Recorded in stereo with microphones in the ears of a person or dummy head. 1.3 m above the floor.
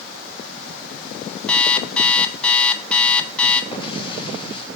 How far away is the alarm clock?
About 1.3 m.